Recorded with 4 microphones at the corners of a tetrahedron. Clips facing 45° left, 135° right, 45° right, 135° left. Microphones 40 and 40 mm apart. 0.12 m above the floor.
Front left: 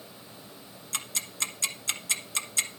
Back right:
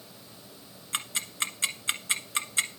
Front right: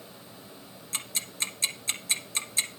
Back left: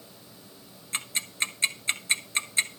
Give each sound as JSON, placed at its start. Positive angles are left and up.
{"t": 0.9, "sound": "ticking", "azimuth_deg": 175, "distance_m": 1.4}